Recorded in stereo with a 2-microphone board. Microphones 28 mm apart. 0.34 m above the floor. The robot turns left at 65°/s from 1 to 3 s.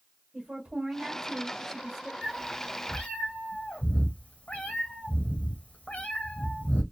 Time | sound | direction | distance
0.3 | a woman speaking | 125° right | 1.2 m
2.2 | a cat meowing | 160° left | 1.4 m